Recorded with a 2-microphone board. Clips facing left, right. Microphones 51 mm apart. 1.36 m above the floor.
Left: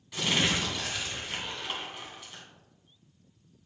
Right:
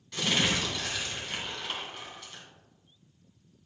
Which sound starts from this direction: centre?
Crumpling, at 0.1 s.